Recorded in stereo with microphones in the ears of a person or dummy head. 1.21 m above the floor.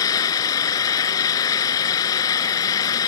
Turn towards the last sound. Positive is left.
turn(degrees=20)  # may be behind; listen again after turning